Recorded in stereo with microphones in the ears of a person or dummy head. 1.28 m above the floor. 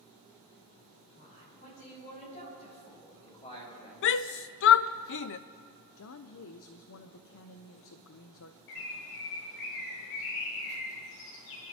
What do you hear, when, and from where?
1.1 s a man speaking: 45° left (ahead or behind), 6.5 m; by 3.9 s 30° left (ahead or behind), 5 m
4.0 s a shout: 60° left (ahead or behind), 0.5 m
6.0 s a woman speaking: 70° left (ahead or behind), 0.7 m
8.7 s a bird: 65° left (ahead or behind), 1.7 m